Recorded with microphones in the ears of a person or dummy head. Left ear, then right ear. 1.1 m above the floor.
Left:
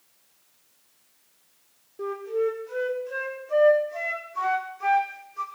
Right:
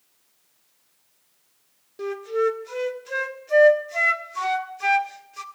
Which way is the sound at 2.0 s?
60° right (ahead or behind).